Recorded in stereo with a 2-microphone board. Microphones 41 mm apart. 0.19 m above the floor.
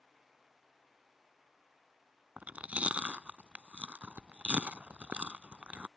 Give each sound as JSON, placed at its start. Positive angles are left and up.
{"t": 2.4, "sound": "chewing", "side_deg": -35}